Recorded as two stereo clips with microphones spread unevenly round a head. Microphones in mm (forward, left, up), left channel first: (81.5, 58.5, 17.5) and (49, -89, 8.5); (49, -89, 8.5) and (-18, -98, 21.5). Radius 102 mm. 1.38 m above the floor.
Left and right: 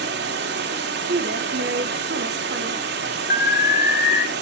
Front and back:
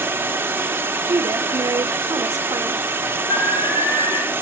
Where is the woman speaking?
140° right, 1.1 m.